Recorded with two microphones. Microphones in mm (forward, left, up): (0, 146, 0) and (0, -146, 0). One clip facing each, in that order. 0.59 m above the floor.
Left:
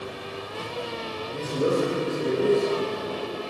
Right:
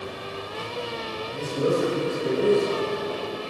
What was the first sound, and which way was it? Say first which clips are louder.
A man speaking: even; 40° left (ahead or behind).